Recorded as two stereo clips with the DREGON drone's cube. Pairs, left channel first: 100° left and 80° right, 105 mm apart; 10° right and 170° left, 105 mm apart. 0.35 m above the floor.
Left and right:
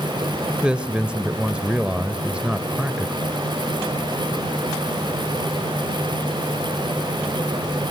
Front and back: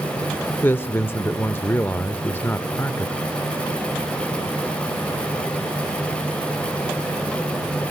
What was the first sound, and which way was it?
A man speaking, 25° right.